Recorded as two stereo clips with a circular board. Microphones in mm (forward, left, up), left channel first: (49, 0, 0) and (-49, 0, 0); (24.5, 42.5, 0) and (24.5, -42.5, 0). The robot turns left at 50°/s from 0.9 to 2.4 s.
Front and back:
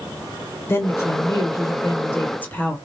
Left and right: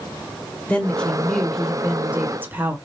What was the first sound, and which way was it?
A woman speaking, 25° left.